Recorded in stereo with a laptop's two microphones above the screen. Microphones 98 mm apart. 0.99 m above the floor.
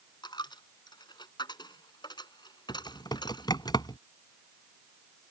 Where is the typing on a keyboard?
45° left (ahead or behind).